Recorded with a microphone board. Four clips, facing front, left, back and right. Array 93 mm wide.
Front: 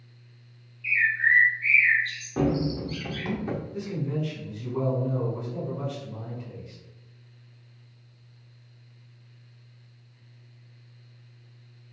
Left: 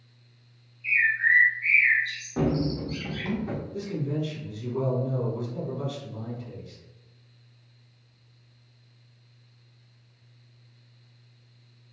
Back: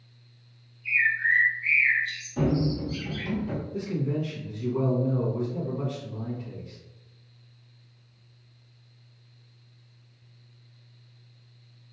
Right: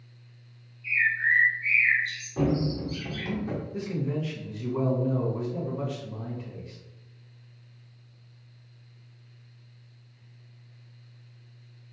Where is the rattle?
I don't hear a rattle.